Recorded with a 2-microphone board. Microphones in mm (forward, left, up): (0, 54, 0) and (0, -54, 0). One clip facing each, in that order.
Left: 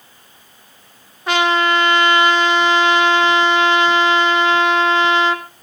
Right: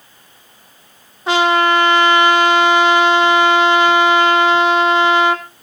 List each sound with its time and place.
1.3 s a trumpet: 20° right (ahead or behind), 2.0 m